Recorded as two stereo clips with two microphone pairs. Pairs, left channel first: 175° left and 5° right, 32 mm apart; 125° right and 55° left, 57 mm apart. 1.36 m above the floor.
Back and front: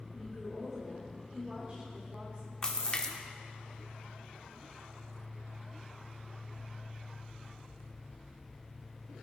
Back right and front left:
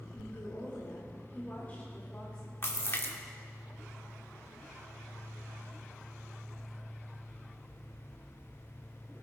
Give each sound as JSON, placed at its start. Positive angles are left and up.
{"t": 0.1, "sound": "a woman speaking", "azimuth_deg": -90, "distance_m": 4.5}
{"t": 2.6, "sound": "a splash", "azimuth_deg": -135, "distance_m": 1.2}